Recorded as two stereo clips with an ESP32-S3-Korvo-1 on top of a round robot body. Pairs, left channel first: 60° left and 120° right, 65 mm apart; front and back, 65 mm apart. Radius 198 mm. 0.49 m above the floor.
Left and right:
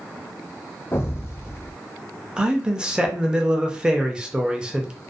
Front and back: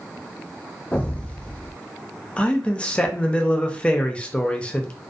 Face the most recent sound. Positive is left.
turn(degrees=-55)